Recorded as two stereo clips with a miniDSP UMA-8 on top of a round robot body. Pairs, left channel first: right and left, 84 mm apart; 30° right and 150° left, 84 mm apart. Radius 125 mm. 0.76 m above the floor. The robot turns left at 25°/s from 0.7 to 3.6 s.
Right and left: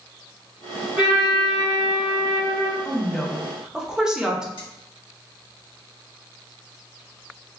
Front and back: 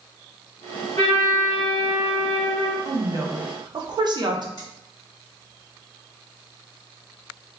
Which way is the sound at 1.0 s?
10° left.